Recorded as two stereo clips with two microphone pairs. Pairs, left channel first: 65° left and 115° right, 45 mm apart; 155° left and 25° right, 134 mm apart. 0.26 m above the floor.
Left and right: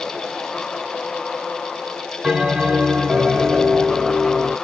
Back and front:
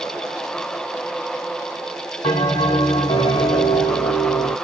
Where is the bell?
Straight behind, 1.8 m.